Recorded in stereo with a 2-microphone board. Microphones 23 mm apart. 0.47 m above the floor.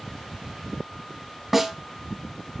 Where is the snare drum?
10° right (ahead or behind), 1.1 m.